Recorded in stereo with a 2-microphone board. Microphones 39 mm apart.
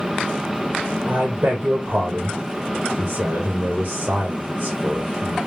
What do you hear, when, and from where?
1.1 s a man speaking: 35° right (ahead or behind), 1.2 m